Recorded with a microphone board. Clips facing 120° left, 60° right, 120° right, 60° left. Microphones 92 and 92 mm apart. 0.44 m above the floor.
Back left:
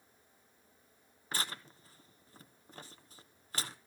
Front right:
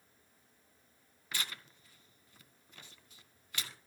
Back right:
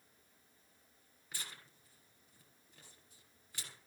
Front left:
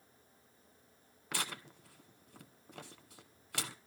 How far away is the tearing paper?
About 0.9 m.